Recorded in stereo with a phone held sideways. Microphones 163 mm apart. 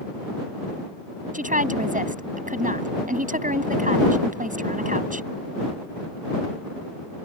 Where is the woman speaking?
55° right (ahead or behind).